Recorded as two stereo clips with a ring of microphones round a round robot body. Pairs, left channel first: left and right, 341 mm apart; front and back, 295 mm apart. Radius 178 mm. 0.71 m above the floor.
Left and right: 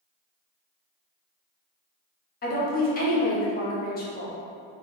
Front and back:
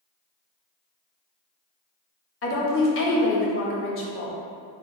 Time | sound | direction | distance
2.4 | a woman speaking | 30° left | 0.7 m